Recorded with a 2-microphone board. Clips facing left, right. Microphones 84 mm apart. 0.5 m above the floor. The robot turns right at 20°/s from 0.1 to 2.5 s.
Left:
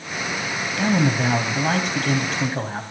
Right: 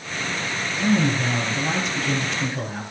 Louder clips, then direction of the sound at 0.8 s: Left 1 dB; 105° left.